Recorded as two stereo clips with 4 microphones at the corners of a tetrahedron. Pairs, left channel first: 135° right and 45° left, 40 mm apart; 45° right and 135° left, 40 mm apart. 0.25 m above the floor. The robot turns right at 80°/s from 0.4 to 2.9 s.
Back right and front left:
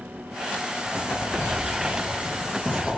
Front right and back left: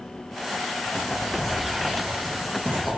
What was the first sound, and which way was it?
Writing, 15° right.